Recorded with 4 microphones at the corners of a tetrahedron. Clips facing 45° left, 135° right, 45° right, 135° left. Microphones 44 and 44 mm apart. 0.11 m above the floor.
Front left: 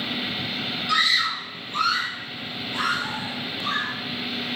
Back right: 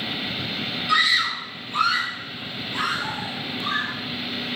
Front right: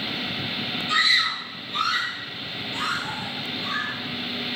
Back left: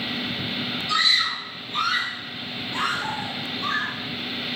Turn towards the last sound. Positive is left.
turn(degrees=135)